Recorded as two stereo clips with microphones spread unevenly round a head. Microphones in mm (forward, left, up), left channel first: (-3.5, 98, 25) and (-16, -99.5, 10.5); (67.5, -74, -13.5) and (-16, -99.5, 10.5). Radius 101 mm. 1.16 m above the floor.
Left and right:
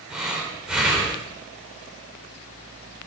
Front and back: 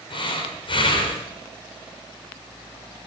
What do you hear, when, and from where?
0.1 s breathing: 5° right, 3.5 m